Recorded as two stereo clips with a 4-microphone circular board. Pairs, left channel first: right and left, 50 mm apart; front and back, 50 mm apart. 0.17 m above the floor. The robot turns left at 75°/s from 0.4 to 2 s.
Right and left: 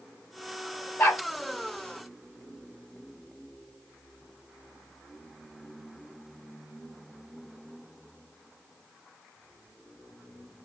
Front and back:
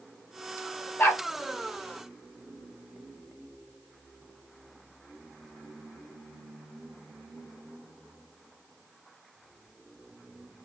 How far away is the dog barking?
About 1.9 m.